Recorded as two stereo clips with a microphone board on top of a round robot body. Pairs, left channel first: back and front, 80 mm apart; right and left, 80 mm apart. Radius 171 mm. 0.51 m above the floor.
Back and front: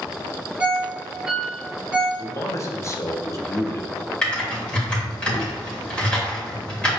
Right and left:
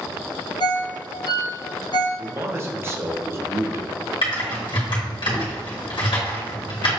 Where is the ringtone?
80° right, 0.9 m.